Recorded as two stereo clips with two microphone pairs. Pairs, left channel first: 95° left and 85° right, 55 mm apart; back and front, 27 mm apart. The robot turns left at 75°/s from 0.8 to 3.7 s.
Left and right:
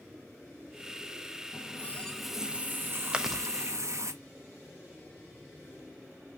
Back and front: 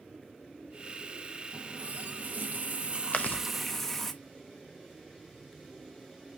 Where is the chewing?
155° right, 0.8 m; by 3.4 s straight behind, 0.8 m.